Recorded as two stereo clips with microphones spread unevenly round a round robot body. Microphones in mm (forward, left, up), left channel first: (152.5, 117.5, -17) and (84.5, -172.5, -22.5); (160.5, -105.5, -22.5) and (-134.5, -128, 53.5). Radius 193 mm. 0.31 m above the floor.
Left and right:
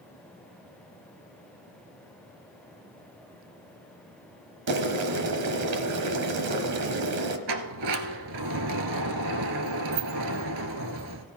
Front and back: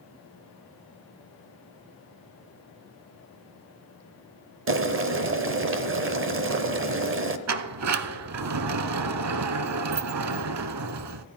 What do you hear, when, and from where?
4.7 s boiling: 125° right, 1.1 m
7.5 s a sliding door: 145° right, 0.7 m